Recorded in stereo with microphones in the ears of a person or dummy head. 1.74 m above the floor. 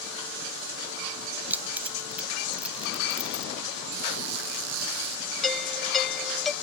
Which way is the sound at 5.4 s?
Centre (ahead or behind).